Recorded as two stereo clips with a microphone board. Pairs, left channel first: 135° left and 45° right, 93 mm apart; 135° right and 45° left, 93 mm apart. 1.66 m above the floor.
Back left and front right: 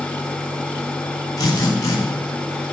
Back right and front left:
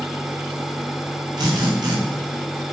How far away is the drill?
About 9 m.